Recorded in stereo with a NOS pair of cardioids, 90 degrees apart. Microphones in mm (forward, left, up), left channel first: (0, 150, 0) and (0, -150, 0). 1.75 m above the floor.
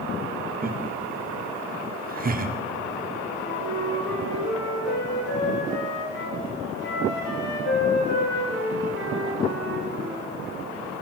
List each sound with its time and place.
0.6 s laughter: 30° right, 1.2 m
3.4 s a flute: 55° left, 3 m